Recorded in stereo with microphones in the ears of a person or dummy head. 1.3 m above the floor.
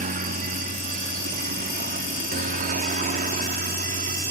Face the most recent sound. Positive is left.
turn(degrees=-40)  # may be behind; listen again after turning